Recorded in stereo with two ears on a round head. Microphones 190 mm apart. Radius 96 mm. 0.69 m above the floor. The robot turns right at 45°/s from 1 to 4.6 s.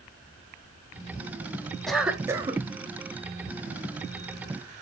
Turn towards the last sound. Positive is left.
turn(degrees=-60)